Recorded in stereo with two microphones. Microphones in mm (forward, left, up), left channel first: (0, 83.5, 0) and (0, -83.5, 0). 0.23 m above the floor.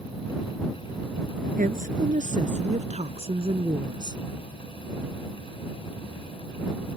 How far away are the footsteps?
I don't hear footsteps.